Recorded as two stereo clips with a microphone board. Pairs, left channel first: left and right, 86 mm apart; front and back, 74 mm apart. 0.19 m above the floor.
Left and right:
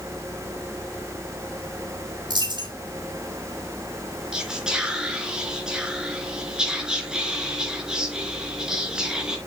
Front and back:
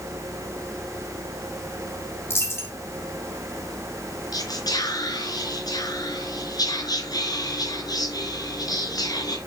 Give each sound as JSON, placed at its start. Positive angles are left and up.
{"t": 2.3, "sound": "a dropped coin", "azimuth_deg": -55, "distance_m": 3.5}
{"t": 4.3, "sound": "whispering", "azimuth_deg": -10, "distance_m": 3.5}